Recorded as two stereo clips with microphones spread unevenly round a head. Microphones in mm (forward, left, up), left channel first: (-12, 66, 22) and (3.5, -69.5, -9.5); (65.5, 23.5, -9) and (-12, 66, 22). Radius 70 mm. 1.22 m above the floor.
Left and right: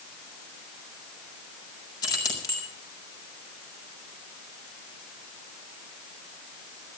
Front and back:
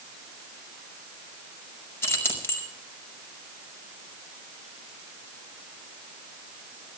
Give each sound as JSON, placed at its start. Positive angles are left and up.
{"t": 2.0, "sound": "keys jangling", "azimuth_deg": 35, "distance_m": 5.0}